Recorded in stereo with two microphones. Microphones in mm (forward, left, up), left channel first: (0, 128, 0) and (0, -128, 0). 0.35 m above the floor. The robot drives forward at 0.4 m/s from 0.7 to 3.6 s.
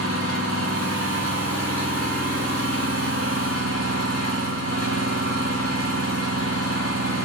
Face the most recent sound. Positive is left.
turn(degrees=-60)  # may be behind; listen again after turning